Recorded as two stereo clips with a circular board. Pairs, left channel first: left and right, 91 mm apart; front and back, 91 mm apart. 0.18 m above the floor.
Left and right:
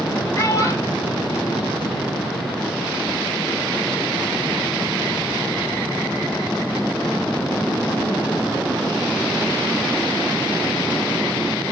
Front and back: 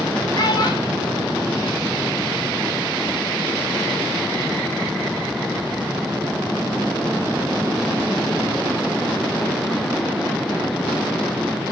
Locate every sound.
0.3 s a child speaking: 35° left, 3.5 m; by 2.3 s 60° left, 4 m